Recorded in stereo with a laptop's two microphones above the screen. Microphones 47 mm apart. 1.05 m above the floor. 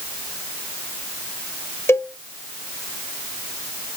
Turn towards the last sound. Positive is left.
turn(degrees=60)  # may be behind; listen again after turning